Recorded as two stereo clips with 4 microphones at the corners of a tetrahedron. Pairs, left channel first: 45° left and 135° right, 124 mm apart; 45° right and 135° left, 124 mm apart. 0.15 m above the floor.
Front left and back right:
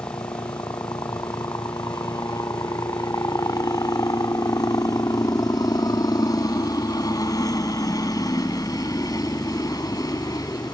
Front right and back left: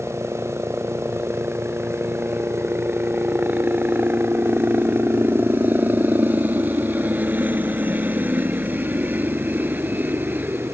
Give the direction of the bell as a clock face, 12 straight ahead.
I don't hear a bell.